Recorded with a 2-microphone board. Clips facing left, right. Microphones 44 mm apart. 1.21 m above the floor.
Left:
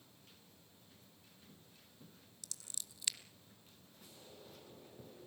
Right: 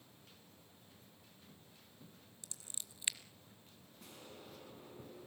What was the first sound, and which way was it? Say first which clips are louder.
Scissors: left 1 dB; 25° right (ahead or behind).